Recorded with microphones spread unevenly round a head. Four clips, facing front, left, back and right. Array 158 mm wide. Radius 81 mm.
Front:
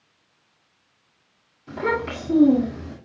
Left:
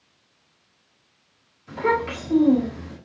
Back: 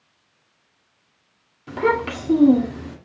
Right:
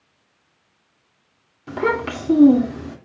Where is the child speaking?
115° right, 2 m.